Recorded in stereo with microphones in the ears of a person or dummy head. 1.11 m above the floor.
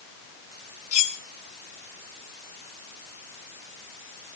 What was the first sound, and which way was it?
Cutlery clinking, 40° left (ahead or behind).